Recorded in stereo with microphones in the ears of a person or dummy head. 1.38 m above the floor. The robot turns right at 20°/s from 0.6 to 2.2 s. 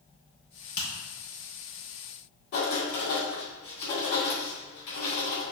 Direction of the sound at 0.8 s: 55° left (ahead or behind).